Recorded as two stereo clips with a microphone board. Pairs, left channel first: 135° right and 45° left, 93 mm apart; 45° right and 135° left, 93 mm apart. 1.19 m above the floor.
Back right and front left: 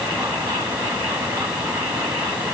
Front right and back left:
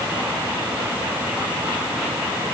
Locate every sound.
Only background noise.